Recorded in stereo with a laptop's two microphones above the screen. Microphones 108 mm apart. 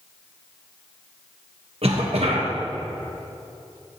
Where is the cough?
70° right (ahead or behind), 1.0 m.